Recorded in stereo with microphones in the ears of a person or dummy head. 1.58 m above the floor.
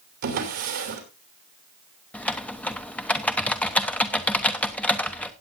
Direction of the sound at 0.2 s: 65° right (ahead or behind).